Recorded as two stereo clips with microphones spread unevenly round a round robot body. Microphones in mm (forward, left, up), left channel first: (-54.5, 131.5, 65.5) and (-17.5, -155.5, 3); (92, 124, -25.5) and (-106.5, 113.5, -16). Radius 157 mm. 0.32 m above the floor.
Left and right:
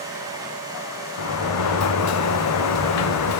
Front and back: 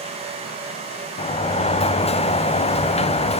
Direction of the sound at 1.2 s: 60° left.